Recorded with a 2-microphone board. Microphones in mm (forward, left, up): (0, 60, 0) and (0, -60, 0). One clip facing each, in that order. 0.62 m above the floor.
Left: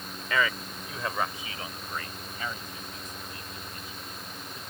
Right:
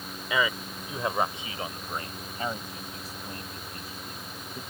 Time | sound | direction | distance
0.3 | a man speaking | 15° right (ahead or behind) | ?